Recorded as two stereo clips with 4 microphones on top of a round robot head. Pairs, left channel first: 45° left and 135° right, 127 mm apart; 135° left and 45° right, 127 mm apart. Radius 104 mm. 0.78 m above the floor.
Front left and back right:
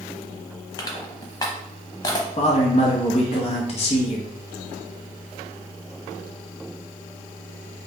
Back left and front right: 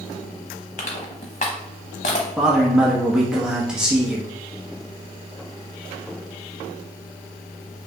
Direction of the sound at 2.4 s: 35° left.